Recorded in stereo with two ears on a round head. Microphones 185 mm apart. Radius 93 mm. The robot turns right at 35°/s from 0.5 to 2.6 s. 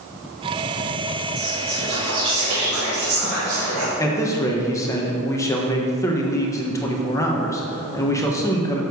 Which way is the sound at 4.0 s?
15° left (ahead or behind).